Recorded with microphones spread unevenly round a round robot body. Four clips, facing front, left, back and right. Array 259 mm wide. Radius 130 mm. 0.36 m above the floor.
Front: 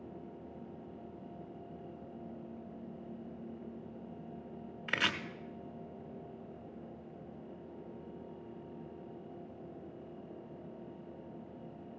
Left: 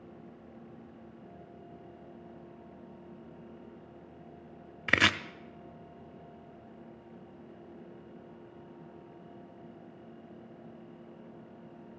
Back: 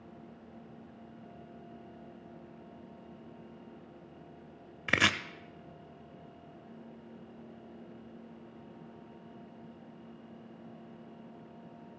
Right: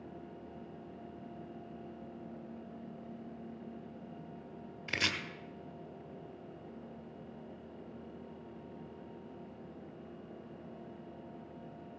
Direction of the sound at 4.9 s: 135° left.